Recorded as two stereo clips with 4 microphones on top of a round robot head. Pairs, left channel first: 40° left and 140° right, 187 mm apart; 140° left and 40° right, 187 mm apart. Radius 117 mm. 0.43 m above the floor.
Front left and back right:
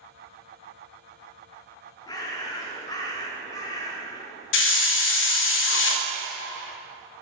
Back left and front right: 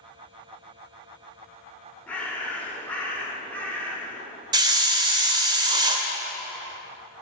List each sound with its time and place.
2.1 s a bird: 70° left, 1.0 m
4.5 s a hiss: 25° left, 0.5 m